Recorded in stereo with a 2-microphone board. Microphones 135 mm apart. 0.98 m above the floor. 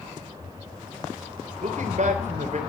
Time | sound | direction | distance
1.6 | a man speaking | 60° right (ahead or behind) | 3.5 m